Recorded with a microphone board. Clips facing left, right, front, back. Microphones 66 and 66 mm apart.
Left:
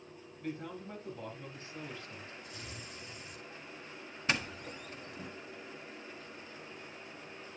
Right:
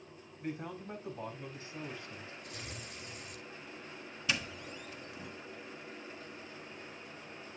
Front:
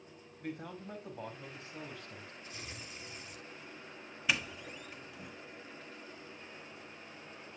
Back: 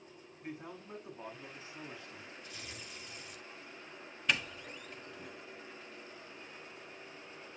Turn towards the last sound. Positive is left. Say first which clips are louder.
# left 2 dB, even
turn(degrees=80)